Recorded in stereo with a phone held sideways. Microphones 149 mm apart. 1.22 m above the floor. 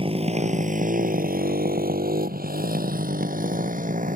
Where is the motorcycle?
40° right (ahead or behind); by 4.2 s 65° right (ahead or behind).